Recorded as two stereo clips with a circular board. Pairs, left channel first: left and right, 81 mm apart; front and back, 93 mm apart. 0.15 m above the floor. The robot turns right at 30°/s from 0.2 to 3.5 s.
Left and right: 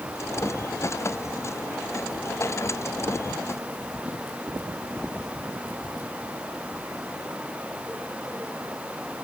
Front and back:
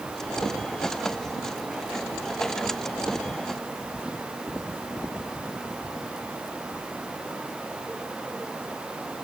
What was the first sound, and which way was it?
Only background noise.